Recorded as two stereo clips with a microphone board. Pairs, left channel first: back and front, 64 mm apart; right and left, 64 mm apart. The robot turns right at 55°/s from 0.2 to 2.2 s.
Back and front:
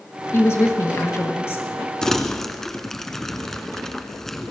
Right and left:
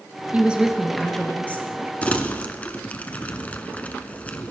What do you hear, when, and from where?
0.3 s a woman speaking: 150° left, 2 m; by 1.7 s 140° right, 2 m
2.0 s crumpling: 115° right, 1.0 m; by 4.5 s 105° right, 1.0 m